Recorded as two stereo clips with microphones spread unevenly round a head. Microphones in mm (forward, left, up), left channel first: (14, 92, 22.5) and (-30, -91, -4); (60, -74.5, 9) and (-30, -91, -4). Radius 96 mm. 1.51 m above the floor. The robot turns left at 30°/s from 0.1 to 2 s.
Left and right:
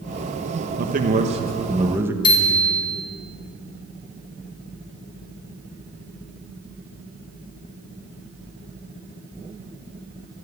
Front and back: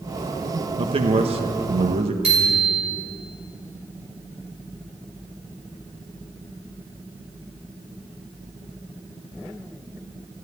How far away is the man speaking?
About 1.4 m.